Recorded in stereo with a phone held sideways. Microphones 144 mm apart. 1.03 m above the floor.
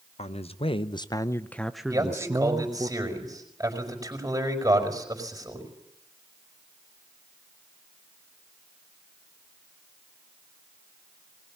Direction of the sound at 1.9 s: 25° right (ahead or behind).